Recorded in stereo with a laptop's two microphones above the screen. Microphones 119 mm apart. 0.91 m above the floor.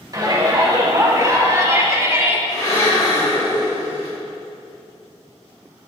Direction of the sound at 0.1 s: 35° right (ahead or behind).